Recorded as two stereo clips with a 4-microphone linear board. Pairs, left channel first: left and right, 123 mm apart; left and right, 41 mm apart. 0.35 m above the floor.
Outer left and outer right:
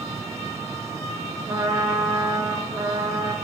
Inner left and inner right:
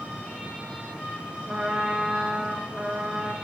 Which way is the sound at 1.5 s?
35° right (ahead or behind).